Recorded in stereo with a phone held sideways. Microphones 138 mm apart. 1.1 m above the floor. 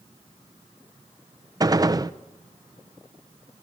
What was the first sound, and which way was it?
A gunshot, 25° right (ahead or behind).